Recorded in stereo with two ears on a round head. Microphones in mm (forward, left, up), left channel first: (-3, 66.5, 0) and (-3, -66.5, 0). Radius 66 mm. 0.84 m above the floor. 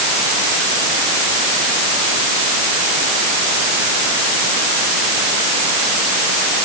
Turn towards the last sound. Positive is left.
No sound to turn to.